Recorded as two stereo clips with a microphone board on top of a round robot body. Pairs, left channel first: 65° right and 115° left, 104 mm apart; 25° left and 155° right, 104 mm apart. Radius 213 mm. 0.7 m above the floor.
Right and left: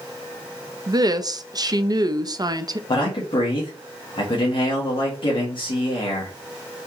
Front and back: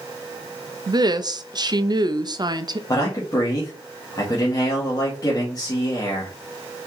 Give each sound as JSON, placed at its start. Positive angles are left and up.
{"t": 0.9, "sound": "a woman speaking", "azimuth_deg": 160, "distance_m": 0.6}
{"t": 2.9, "sound": "a man speaking", "azimuth_deg": -30, "distance_m": 1.3}